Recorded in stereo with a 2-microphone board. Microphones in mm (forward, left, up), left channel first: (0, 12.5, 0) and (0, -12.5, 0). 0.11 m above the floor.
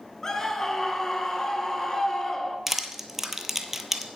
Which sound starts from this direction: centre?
Crushing, at 2.7 s.